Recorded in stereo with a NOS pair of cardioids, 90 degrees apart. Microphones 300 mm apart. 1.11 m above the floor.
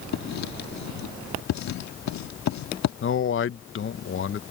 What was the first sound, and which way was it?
Writing, 65° left.